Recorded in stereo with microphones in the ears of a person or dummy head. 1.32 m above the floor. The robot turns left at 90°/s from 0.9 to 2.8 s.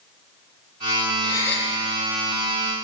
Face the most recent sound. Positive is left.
turn(degrees=-110)